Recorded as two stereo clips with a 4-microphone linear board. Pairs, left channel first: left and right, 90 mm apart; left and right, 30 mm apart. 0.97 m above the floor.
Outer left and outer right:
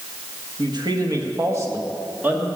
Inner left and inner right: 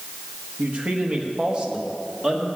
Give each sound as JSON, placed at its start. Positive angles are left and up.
{"t": 0.6, "sound": "a man speaking", "side_deg": -55, "distance_m": 1.4}